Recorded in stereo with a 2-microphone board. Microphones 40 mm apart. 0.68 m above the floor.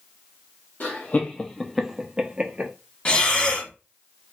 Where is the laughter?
50° left (ahead or behind), 0.7 m; by 2.7 s 30° right (ahead or behind), 1.0 m.